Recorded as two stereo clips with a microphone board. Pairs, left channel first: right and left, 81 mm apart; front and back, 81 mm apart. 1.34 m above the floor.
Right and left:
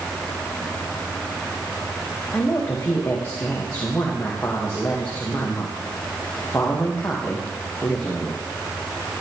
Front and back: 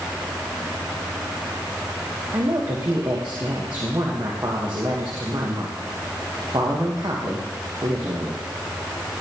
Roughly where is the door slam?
No door slam in this recording.